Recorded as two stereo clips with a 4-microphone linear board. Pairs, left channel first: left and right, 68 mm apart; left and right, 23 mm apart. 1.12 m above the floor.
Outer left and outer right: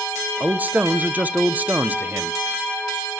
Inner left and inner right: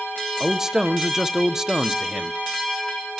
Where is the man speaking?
25° right (ahead or behind), 0.5 m.